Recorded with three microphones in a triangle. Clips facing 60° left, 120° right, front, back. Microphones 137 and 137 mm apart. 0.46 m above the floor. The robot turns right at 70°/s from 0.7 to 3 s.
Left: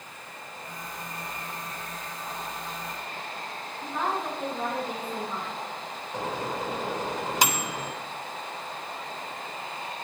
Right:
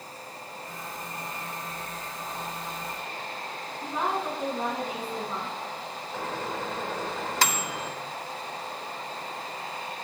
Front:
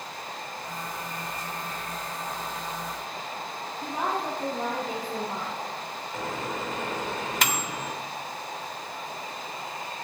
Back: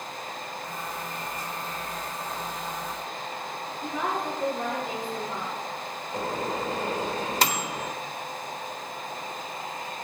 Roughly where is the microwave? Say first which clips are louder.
Left 2 dB, back 3 dB; behind left.